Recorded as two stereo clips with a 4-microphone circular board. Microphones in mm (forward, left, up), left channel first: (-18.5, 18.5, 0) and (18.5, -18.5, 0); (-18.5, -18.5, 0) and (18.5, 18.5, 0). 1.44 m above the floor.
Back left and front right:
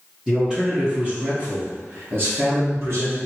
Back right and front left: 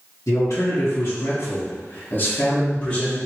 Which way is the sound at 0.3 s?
125° right.